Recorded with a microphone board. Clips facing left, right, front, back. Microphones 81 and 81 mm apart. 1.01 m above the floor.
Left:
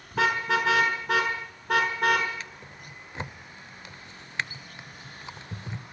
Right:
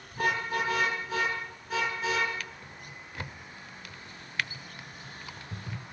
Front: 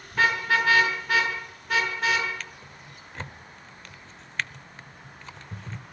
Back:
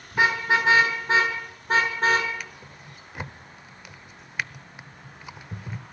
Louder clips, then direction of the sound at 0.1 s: Left 5 dB, back 1 dB; 105° left.